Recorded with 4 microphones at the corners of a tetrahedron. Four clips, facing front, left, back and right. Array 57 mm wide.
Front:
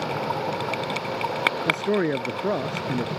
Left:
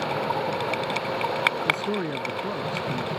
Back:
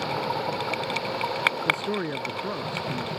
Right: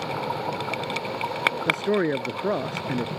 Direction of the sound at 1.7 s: 50° right.